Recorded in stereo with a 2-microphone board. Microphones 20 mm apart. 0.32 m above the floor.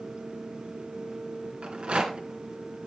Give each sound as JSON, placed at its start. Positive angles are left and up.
{"t": 1.6, "sound": "a rattle", "side_deg": -65, "distance_m": 3.0}